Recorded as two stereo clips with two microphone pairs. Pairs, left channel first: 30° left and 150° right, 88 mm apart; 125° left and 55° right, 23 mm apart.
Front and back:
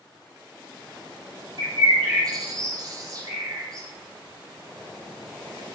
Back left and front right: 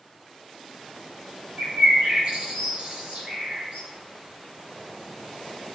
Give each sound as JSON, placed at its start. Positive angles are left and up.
{"t": 1.6, "sound": "a bird", "azimuth_deg": -105, "distance_m": 5.0}